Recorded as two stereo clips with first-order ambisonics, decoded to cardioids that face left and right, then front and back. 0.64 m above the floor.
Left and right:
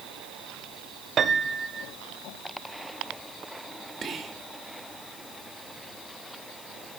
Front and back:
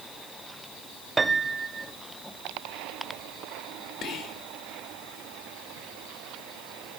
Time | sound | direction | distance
1.2 | a piano | 115° right | 0.6 m
4.0 | whispering | 35° right | 1.1 m